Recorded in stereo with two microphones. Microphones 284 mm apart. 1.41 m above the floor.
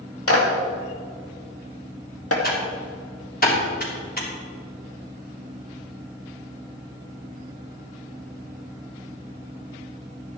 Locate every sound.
0.3 s a clap: 55° left (ahead or behind), 2.0 m
2.4 s typing on a keyboard: 30° left (ahead or behind), 3 m